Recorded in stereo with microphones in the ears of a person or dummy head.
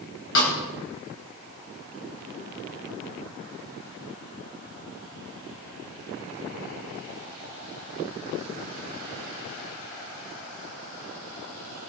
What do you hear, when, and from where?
0.3 s a snare drum: 65° left (ahead or behind), 3.5 m